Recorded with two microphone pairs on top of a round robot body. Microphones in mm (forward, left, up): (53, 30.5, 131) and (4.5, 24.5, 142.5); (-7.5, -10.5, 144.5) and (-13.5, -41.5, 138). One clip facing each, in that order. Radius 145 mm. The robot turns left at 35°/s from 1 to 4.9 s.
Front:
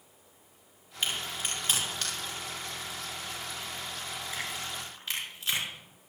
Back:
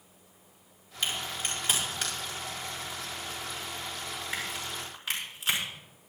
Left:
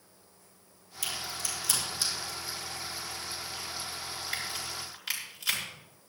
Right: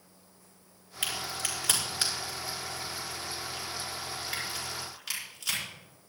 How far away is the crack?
About 5.5 m.